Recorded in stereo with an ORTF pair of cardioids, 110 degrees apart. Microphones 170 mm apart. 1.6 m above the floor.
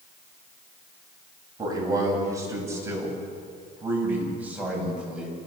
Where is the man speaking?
20° right, 9 m; by 5.5 s 5° right, 8.5 m.